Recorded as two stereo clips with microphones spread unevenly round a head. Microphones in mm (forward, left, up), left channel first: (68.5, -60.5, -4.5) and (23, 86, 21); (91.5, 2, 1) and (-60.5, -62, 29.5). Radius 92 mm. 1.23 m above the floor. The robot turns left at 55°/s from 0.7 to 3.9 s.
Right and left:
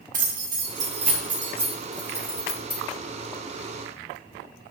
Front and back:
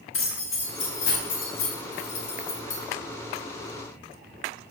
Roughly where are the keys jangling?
Left.